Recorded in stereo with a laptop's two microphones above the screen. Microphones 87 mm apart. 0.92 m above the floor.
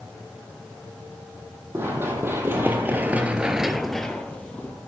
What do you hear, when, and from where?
1.7 s running footsteps: 25° right (ahead or behind), 2 m; by 4.8 s 15° left (ahead or behind), 1.6 m